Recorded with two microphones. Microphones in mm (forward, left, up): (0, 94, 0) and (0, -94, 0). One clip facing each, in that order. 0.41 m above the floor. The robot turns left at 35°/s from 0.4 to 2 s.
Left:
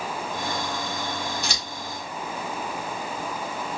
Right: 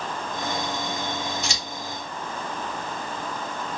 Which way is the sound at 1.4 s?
60° left (ahead or behind).